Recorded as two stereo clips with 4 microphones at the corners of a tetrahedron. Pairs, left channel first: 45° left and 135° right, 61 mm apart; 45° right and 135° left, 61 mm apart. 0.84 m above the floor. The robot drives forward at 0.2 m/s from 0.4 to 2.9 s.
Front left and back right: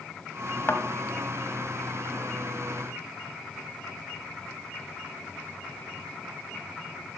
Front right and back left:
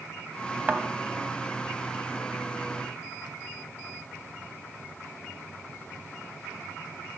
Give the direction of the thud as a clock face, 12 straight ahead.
9 o'clock.